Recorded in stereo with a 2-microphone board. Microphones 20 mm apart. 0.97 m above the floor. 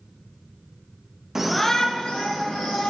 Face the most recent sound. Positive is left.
turn(degrees=75)  # may be behind; listen again after turning